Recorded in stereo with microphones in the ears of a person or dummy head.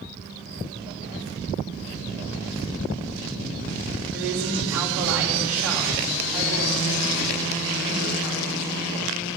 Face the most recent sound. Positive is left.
turn(degrees=-10)  # may be behind; listen again after turning